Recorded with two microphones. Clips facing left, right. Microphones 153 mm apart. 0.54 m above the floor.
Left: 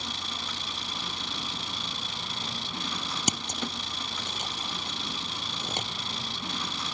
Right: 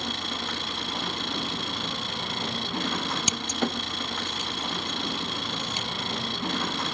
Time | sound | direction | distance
0.0 | an engine running | 60° right (ahead or behind) | ?
3.3 | scissors | 45° left (ahead or behind) | ?